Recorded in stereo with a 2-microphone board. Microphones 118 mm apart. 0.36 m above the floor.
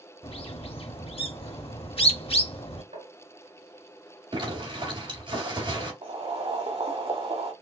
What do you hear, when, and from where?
0.2 s a bird: 55° left (ahead or behind), 0.7 m
2.9 s tapping: 80° right, 2.0 m
4.3 s a zipper: 45° right (ahead or behind), 2.5 m
6.0 s boiling: 60° right (ahead or behind), 1.1 m